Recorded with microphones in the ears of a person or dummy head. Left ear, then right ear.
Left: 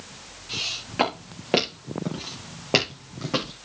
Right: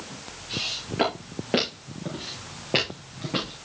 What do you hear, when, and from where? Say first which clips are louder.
0.5 s footsteps: left 1 dB; 35° left (ahead or behind), 5 m; by 3.5 s 50° left (ahead or behind), 3.5 m